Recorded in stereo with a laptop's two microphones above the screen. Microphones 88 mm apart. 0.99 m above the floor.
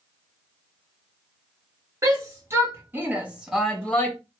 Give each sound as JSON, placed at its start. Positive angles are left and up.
{"t": 2.0, "sound": "a shout", "side_deg": -35, "distance_m": 1.6}